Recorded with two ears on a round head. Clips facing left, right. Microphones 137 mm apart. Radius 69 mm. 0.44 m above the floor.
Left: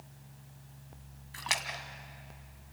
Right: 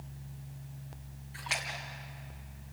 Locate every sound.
1.3 s a splash: 75° left (ahead or behind), 1.9 m